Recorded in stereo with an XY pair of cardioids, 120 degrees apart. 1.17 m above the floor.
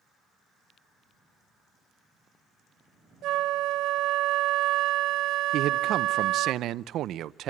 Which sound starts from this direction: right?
A flute, at 3.2 s.